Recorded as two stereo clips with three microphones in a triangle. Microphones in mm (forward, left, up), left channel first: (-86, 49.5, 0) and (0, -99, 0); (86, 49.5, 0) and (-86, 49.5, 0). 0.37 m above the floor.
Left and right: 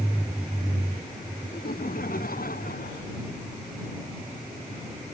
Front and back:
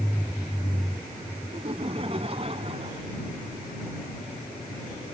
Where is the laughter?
130° left.